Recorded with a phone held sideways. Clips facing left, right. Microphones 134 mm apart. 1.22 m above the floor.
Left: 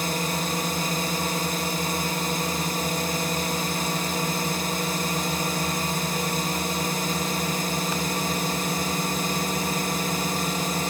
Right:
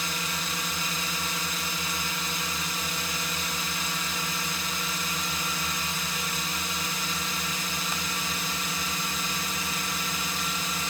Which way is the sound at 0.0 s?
50° left (ahead or behind).